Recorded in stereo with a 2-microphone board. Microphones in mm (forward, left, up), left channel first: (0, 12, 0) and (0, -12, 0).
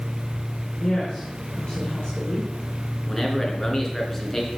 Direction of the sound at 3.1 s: 15° left (ahead or behind).